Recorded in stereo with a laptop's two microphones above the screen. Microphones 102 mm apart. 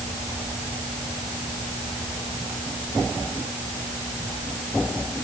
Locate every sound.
Only background noise.